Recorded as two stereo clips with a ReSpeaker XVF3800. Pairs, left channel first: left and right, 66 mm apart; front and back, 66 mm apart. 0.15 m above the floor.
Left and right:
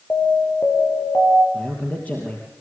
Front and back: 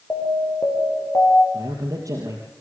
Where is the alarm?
45° left, 3.5 m.